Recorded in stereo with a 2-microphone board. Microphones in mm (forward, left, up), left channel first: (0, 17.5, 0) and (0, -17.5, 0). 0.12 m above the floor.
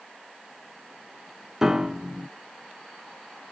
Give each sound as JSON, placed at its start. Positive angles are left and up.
{"t": 1.6, "sound": "a piano", "side_deg": -15, "distance_m": 0.6}